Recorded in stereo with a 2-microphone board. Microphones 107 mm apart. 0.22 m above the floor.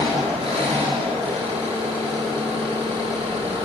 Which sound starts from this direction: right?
An engine running, at 0.0 s.